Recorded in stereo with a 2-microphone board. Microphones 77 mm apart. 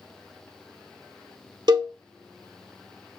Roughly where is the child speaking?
I don't hear a child speaking.